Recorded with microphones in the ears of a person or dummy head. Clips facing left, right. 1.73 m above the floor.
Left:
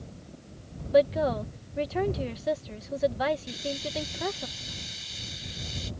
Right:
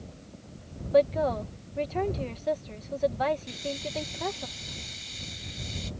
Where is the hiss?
5° left (ahead or behind).